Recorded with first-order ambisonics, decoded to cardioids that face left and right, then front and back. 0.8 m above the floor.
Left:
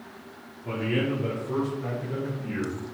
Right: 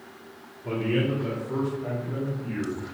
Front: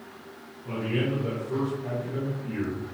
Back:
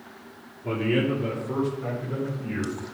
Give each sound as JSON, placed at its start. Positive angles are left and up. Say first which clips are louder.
{"t": 0.6, "sound": "a man speaking", "louder": "right 1 dB, back 4 dB", "azimuth_deg": 180, "distance_m": 1.5}